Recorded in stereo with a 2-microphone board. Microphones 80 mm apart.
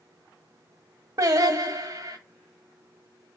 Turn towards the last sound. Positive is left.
turn(degrees=-45)  # may be behind; listen again after turning